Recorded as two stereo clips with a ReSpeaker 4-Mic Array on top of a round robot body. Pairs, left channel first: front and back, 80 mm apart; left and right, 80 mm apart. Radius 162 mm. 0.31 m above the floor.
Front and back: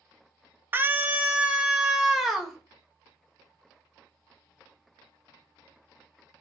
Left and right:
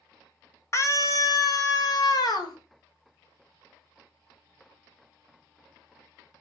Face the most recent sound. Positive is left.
turn(degrees=90)